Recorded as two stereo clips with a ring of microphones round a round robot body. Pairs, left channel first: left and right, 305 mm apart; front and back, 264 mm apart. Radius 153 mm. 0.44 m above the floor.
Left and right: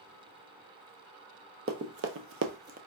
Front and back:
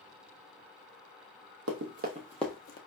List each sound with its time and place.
1.7 s running footsteps: 145° right, 0.8 m; by 2.8 s 35° right, 0.5 m